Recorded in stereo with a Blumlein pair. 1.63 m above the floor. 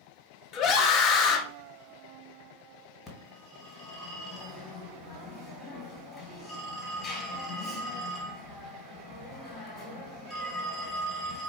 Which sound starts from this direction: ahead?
A phone ringing, at 3.1 s.